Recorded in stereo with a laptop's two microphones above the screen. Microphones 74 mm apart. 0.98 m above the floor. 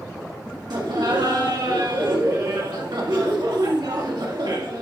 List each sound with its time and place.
0.7 s laughter: 80° right, 1.7 m